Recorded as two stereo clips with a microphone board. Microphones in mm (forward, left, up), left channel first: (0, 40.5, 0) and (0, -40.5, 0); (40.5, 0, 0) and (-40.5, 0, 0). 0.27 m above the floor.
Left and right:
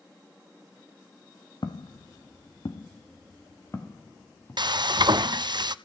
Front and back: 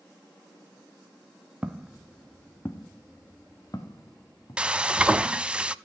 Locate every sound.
1.6 s footsteps: 105° left, 1.0 m; by 4.6 s 30° left, 2.5 m
4.6 s frying: 105° right, 0.5 m